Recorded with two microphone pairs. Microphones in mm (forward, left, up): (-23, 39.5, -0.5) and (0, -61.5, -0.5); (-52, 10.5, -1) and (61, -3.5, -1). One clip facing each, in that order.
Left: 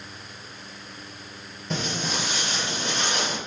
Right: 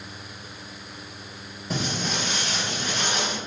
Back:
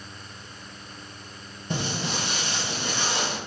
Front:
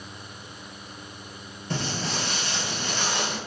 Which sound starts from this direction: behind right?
Footsteps, at 1.7 s.